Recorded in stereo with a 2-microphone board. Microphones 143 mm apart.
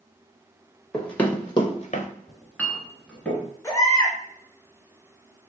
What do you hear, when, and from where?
0.9 s running footsteps: 5° left (ahead or behind), 1.6 m; by 2.1 s 65° left (ahead or behind), 1.0 m
2.3 s a clink: 5° left (ahead or behind), 0.8 m
3.6 s a baby crying: 20° left (ahead or behind), 1.1 m